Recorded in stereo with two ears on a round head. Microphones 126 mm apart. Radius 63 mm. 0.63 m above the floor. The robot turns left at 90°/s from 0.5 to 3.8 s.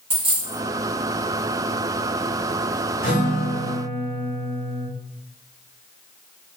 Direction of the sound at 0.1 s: 35° right (ahead or behind).